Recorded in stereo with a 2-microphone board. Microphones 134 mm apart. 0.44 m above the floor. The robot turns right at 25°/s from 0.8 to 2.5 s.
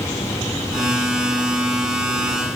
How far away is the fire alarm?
No fire alarm in this recording.